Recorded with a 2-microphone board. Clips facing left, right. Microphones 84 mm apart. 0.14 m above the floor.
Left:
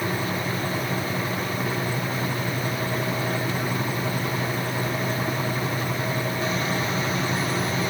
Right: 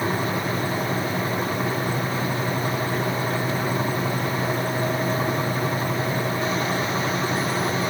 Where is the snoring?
I don't hear snoring.